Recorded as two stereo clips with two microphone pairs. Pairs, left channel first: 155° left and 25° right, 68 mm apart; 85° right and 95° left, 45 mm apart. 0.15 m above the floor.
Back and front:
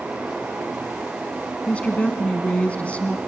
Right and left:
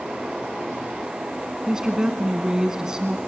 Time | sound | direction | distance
1.7 | a woman speaking | 135° left | 1.0 m